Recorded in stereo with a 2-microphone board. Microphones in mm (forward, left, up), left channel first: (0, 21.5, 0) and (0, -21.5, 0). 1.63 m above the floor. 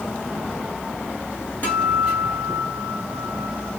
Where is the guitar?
40° left (ahead or behind), 1.7 m.